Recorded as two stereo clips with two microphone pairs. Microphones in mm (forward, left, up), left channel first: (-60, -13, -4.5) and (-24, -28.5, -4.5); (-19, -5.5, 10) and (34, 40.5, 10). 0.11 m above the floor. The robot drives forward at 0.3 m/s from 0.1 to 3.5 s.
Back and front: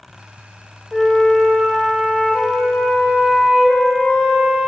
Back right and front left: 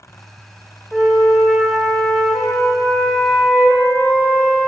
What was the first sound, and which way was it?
A flute, 115° left.